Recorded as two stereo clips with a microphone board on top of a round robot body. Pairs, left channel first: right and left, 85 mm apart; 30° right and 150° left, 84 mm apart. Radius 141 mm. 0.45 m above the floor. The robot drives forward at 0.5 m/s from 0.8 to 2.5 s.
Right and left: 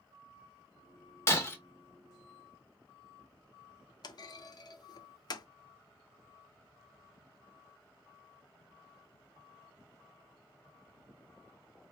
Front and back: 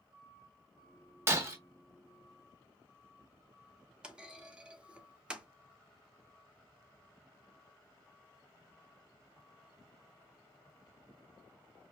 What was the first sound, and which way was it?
Breaking glass, 150° right.